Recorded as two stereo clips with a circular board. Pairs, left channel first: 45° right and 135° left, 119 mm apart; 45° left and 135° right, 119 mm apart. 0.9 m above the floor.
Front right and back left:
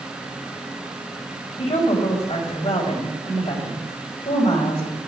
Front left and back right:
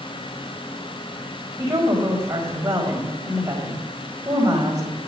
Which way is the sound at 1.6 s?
80° right.